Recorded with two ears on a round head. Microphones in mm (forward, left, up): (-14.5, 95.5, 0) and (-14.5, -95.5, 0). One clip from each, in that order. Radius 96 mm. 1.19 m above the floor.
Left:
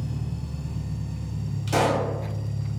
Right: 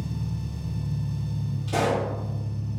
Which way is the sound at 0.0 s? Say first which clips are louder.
Even; 45° left (ahead or behind).